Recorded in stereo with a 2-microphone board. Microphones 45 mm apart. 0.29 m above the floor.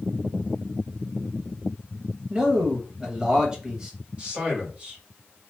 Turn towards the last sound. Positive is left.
turn(degrees=-30)  # may be behind; listen again after turning